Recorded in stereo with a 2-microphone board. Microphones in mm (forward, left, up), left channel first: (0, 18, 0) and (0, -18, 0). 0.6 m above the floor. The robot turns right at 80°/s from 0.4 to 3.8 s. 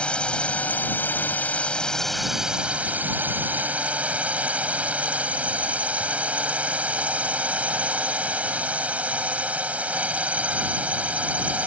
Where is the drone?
40° left; by 11.7 s 50° right.